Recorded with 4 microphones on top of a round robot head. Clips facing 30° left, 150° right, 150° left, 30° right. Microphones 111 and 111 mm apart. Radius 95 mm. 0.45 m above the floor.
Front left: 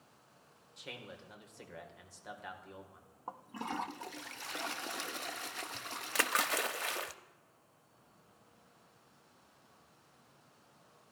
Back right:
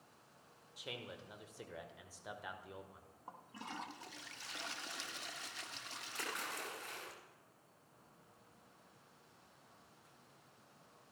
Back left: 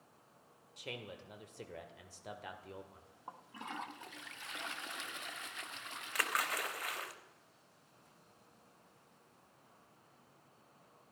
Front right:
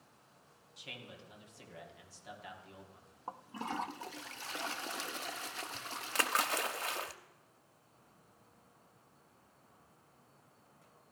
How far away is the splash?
About 0.7 m.